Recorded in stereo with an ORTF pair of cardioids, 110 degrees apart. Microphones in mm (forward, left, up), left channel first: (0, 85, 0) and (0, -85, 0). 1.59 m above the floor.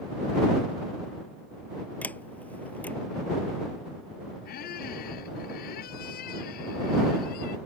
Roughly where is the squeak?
Ahead left.